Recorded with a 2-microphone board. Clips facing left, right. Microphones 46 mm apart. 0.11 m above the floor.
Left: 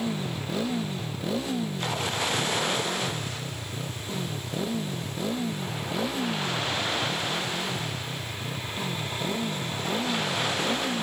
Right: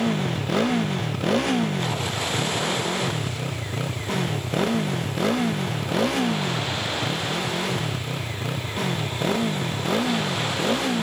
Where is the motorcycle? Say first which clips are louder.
Right 6 dB; 65° right (ahead or behind); by 11.0 s 75° right (ahead or behind).